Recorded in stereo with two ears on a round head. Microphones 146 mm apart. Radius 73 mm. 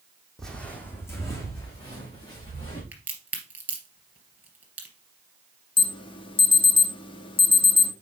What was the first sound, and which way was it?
Footsteps, centre (ahead or behind).